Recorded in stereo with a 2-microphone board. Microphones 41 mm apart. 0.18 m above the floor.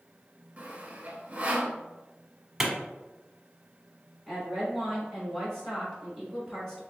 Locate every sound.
0.6 s sawing: 35° right (ahead or behind), 0.9 m
2.6 s a clap: 10° right (ahead or behind), 1.0 m
4.3 s a woman speaking: 15° left (ahead or behind), 1.7 m